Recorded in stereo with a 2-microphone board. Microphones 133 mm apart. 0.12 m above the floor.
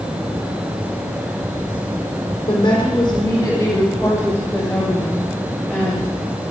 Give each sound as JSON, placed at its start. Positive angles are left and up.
{"t": 2.5, "sound": "a woman speaking", "side_deg": 35, "distance_m": 5.0}